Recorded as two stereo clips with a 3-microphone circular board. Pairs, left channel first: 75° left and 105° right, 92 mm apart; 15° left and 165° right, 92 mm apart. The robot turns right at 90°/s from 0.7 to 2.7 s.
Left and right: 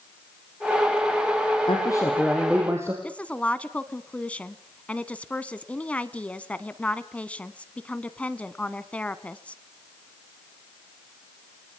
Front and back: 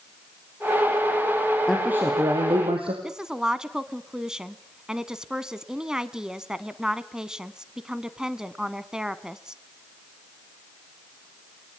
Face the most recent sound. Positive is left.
turn(degrees=125)